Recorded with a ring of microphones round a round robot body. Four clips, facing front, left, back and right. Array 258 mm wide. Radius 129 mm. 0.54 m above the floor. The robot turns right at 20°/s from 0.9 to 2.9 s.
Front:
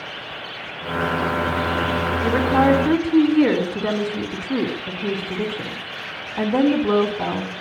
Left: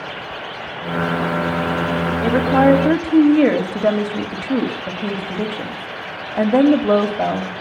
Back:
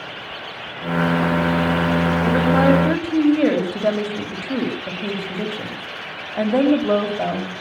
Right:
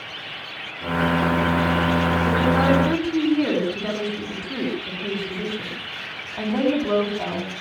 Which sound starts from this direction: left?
A woman speaking, at 2.2 s.